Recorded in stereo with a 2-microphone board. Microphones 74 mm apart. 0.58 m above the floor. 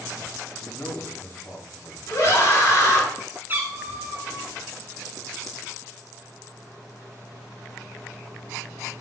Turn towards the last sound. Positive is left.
turn(degrees=-30)  # may be behind; listen again after turning